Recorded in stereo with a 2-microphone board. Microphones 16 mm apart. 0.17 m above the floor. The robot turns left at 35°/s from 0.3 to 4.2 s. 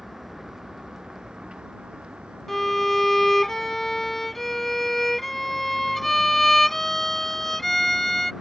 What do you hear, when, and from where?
0.0 s a vehicle: 20° right; by 8.4 s 155° right
2.5 s a violin: 25° left (ahead or behind); by 8.3 s 20° left (ahead or behind)